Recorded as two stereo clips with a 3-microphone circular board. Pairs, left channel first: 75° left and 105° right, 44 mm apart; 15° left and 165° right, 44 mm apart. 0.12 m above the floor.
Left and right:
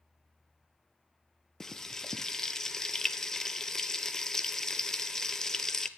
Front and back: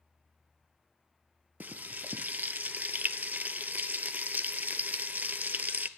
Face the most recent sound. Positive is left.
turn(degrees=150)